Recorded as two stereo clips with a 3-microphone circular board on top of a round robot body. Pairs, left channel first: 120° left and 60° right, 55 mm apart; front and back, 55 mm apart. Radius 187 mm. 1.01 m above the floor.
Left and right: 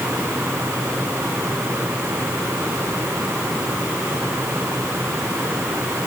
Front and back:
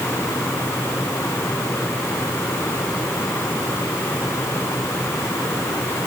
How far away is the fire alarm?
I don't hear a fire alarm.